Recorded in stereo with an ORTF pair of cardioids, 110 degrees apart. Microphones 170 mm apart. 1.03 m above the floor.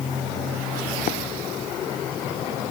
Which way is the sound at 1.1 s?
60° left.